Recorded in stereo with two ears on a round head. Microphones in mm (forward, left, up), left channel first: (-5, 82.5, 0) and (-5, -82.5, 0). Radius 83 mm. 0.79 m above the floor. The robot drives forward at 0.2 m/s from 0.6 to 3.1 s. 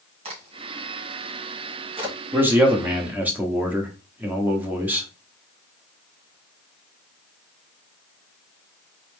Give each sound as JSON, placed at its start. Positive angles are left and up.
{"t": 0.2, "sound": "a crack", "side_deg": -35, "distance_m": 2.0}
{"t": 2.3, "sound": "a man speaking", "side_deg": -10, "distance_m": 1.0}